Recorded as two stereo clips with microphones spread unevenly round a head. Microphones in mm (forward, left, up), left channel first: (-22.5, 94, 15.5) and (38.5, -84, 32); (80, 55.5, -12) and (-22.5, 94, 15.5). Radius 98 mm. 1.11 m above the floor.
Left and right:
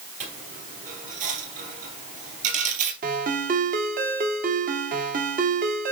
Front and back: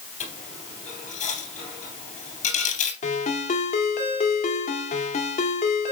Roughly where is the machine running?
I don't hear a machine running.